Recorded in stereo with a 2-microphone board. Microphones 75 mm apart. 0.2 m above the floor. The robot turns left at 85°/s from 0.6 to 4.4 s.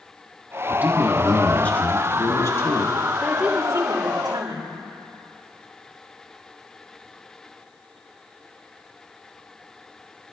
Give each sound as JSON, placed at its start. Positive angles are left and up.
{"t": 0.7, "sound": "a man speaking", "azimuth_deg": -130, "distance_m": 2.0}
{"t": 3.2, "sound": "a woman speaking", "azimuth_deg": 5, "distance_m": 4.5}